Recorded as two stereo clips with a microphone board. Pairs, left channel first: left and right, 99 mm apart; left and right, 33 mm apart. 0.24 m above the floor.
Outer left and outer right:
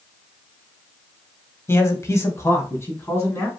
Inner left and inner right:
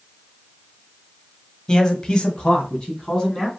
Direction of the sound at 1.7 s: 25° left (ahead or behind).